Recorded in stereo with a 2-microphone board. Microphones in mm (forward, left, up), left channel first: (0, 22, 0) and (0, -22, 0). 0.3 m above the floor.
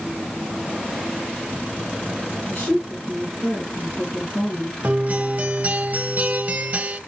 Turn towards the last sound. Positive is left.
turn(degrees=-40)  # may be behind; listen again after turning